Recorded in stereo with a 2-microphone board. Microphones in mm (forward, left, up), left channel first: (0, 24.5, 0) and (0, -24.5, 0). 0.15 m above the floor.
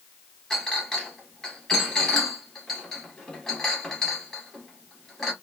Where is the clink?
10° left (ahead or behind), 1.5 m.